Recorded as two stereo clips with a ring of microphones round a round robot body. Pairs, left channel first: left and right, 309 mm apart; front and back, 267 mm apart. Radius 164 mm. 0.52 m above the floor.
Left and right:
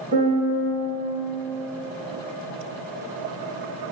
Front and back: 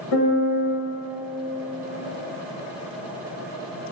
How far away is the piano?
About 0.6 m.